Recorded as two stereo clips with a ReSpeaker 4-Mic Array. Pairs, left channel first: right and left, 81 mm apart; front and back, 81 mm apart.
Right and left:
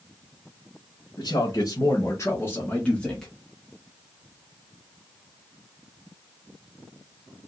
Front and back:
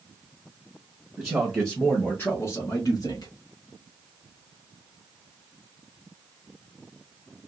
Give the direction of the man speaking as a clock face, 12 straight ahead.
3 o'clock.